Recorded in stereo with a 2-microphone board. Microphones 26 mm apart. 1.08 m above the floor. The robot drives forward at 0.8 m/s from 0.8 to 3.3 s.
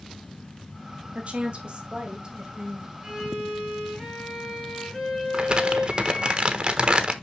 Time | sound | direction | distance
1.1 | a woman speaking | 50° right (ahead or behind) | 1.7 m
3.0 | a violin | centre (ahead or behind) | 4 m
5.3 | crumpling | 35° right (ahead or behind) | 0.9 m